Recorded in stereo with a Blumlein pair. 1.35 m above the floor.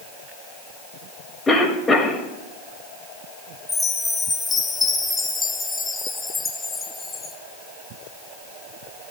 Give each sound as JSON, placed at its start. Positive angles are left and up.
{"t": 1.5, "sound": "a cough", "azimuth_deg": 10, "distance_m": 2.5}
{"t": 3.7, "sound": "a chime", "azimuth_deg": 10, "distance_m": 1.2}